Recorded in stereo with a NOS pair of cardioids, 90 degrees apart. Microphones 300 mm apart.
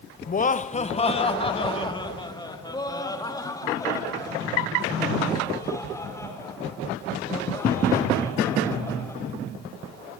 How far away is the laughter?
About 1.0 m.